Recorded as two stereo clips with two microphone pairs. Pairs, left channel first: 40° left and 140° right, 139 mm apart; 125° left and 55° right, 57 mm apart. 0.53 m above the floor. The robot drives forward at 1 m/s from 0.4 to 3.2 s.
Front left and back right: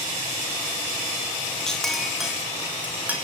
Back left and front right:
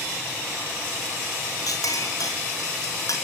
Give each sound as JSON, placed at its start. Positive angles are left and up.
{"t": 1.7, "sound": "a clink", "azimuth_deg": 125, "distance_m": 3.5}